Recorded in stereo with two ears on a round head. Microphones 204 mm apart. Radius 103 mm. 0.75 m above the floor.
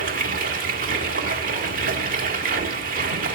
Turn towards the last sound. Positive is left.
turn(degrees=-40)  # may be behind; listen again after turning